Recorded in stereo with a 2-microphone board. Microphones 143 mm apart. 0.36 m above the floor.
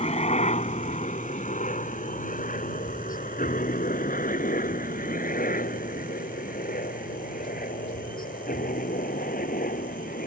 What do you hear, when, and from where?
0.0 s a helicopter: 50° left (ahead or behind); by 10.3 s 80° left